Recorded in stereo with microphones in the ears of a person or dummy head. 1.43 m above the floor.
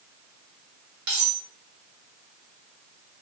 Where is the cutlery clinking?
60° right (ahead or behind), 1.1 m.